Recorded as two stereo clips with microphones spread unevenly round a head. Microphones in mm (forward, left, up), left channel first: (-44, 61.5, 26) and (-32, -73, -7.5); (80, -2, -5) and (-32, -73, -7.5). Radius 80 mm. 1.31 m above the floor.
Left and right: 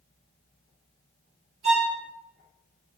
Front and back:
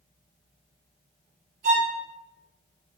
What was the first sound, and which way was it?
A violin, 130° right.